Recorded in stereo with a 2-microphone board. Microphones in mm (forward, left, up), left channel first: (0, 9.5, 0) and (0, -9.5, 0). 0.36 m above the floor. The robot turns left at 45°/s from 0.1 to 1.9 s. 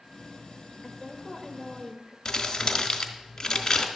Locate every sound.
0.8 s a woman speaking: 5° right (ahead or behind), 1.1 m; by 2.1 s 25° right (ahead or behind), 1.1 m
2.2 s crumpling: 25° left (ahead or behind), 1.2 m